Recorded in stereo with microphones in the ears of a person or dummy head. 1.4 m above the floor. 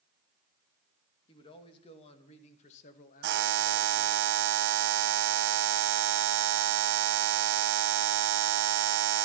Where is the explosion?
No explosion in this recording.